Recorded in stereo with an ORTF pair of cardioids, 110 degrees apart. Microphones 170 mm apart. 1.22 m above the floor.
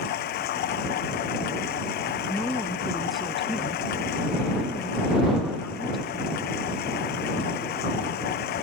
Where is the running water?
70° left.